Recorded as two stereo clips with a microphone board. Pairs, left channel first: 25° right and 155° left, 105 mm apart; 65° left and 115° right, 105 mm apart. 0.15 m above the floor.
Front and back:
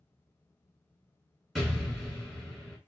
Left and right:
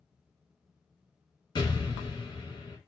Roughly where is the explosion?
Left.